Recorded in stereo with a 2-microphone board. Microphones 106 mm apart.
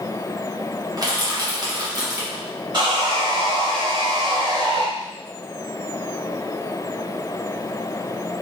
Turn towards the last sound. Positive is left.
turn(degrees=-45)  # may be behind; listen again after turning